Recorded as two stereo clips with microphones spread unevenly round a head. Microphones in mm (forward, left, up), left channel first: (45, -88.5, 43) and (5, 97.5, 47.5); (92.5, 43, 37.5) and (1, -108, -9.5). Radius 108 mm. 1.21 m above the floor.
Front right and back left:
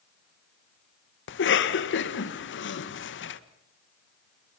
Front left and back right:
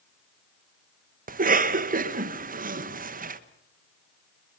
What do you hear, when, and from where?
1.3 s a cough: 95° right, 1.6 m